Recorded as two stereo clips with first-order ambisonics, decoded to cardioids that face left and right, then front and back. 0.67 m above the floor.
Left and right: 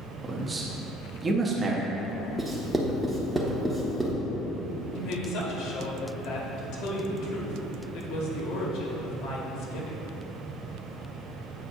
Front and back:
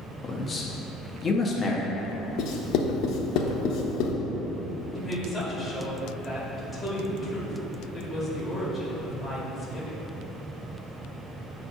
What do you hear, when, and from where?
0.2 s a man speaking: 40° right, 0.7 m
2.4 s writing: 10° right, 0.8 m
5.0 s a woman speaking: 85° left, 1.3 m